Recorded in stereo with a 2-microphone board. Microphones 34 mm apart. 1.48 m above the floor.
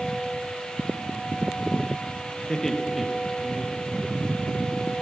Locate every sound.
2.5 s laughter: 20° left (ahead or behind), 1.7 m; by 4.5 s 30° right (ahead or behind), 3.5 m